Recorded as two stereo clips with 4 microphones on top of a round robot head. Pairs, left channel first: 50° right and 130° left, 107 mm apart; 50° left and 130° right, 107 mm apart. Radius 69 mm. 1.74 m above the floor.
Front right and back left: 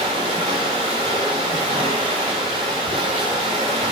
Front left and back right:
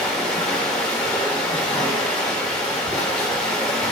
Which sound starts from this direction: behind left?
Running water, at 0.0 s.